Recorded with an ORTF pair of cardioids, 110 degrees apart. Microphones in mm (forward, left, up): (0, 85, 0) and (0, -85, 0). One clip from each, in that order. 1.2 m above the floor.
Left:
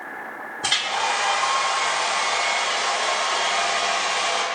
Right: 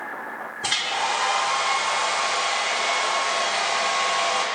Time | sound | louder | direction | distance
0.6 | a hair dryer | left 2 dB | 15° left | 2.5 m